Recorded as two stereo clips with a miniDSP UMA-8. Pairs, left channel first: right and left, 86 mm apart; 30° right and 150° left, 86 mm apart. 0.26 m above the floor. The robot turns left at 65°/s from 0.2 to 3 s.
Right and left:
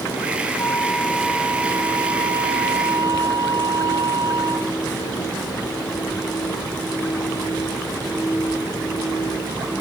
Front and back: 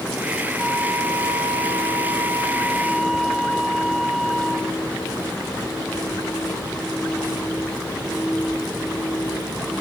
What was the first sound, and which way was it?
A flute, 140° right.